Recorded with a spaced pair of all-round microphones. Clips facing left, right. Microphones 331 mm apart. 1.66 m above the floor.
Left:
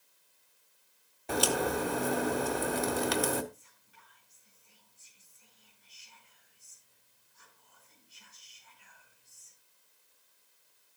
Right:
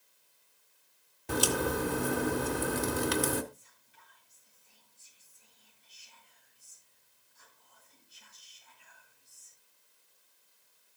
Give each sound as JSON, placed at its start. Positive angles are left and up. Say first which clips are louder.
{"t": 1.3, "sound": "a crack", "louder": "even", "side_deg": -20, "distance_m": 1.5}
{"t": 3.5, "sound": "whispering", "louder": "even", "side_deg": 75, "distance_m": 5.5}